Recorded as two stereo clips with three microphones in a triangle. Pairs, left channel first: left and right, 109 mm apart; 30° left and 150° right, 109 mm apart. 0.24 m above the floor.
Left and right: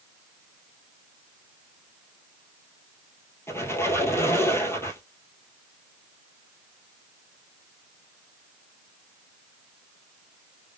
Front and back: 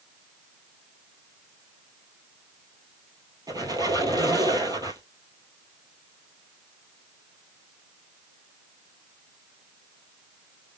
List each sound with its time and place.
3.5 s a squeak: 155° left, 1.7 m